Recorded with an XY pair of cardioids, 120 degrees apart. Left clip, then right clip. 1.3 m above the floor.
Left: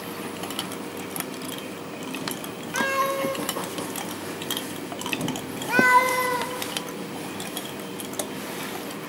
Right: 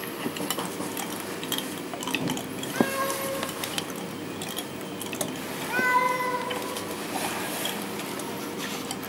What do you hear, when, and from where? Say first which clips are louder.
2.7 s a cat meowing: left 4 dB; 35° left, 1.4 m